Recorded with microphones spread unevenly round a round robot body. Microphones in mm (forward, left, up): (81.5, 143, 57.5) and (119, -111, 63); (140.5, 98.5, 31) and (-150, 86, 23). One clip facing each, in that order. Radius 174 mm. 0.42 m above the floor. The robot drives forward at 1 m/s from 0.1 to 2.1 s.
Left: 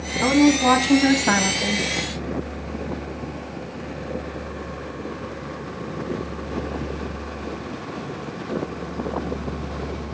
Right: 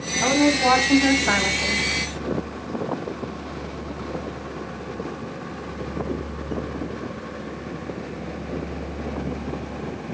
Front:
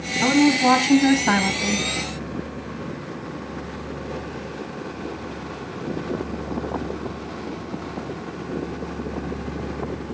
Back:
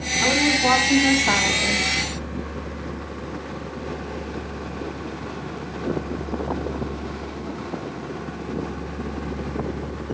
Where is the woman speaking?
40° left, 3.5 m; by 1.9 s 65° left, 2.5 m.